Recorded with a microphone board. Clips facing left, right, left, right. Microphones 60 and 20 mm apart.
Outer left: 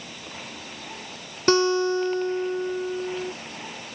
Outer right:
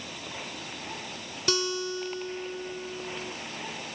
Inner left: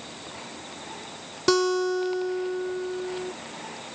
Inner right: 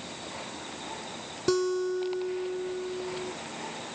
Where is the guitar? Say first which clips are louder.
Outer left 10 dB, inner left 5 dB; 40° left (ahead or behind).